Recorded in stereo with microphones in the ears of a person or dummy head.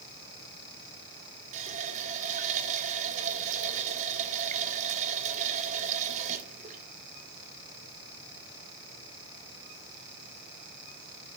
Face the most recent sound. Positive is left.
turn(degrees=-45)  # may be behind; listen again after turning